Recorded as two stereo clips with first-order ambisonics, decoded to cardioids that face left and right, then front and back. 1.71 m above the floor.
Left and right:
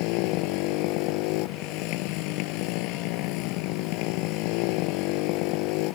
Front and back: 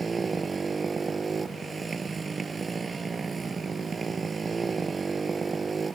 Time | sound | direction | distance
0.0 | a motorcycle | 110° left | ?